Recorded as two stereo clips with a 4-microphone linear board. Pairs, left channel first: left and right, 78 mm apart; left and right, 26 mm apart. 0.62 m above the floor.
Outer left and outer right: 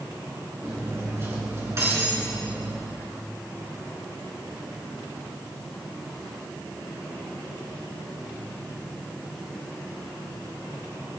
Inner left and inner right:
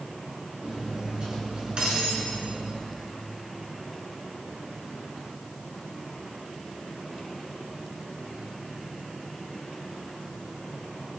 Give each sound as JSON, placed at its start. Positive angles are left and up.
{"t": 0.6, "sound": "cutlery clinking", "side_deg": -35, "distance_m": 4.0}